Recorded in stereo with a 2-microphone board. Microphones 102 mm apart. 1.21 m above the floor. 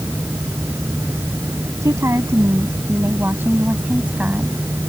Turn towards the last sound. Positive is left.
turn(degrees=-10)  # may be behind; listen again after turning